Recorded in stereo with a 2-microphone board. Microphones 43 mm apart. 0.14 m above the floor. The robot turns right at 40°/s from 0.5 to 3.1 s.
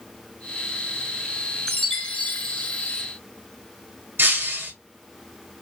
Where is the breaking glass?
55° right (ahead or behind), 1.5 m.